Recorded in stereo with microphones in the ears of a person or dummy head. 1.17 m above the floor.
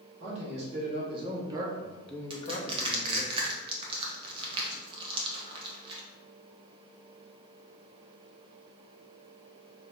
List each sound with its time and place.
0.2 s a man speaking: 45° right (ahead or behind), 1.8 m; by 3.3 s 60° left (ahead or behind), 1.0 m
2.3 s crushing: 30° right (ahead or behind), 1.0 m